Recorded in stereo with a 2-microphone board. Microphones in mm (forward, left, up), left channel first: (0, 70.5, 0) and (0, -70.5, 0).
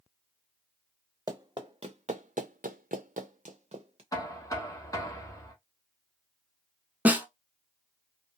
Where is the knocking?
25° left (ahead or behind), 0.8 m.